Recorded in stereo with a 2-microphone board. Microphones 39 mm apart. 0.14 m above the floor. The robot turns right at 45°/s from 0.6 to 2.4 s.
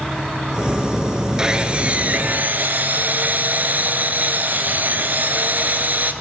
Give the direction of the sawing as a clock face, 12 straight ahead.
5 o'clock.